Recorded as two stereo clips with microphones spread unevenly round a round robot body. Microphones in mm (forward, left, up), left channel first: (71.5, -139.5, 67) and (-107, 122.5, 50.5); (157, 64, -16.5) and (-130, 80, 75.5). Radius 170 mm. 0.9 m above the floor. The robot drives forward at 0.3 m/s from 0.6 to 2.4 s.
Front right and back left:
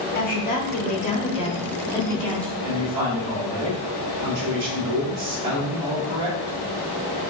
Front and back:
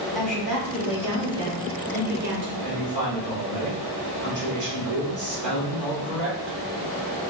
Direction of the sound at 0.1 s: 40° right.